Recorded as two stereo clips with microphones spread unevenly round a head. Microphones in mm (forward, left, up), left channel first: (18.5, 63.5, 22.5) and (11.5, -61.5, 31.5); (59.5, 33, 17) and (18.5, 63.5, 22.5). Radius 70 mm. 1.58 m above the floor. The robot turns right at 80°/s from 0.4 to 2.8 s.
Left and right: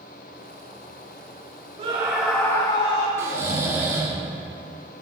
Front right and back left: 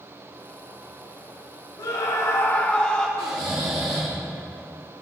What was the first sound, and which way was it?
A scream, 45° right.